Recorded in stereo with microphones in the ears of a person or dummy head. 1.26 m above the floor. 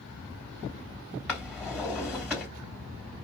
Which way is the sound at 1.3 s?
5° left (ahead or behind).